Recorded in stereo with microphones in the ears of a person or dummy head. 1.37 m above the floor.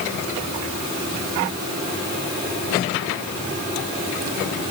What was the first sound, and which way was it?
Only background noise.